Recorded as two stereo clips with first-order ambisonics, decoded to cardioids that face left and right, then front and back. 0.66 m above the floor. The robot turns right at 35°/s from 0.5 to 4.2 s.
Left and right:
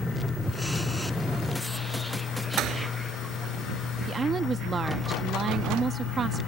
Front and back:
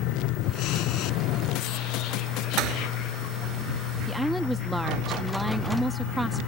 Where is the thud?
140° right; by 2.9 s 130° right.